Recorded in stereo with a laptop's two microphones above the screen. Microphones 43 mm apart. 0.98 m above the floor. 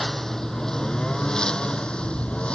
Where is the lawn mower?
10° left (ahead or behind); by 2.5 s 25° left (ahead or behind).